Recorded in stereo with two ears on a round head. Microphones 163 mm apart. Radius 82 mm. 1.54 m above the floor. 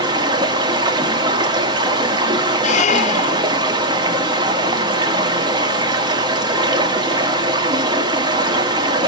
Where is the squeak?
45° left (ahead or behind), 1.0 m.